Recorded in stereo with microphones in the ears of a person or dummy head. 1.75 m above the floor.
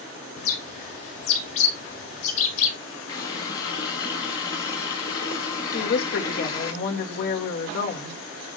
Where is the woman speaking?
60° left (ahead or behind), 2.5 m.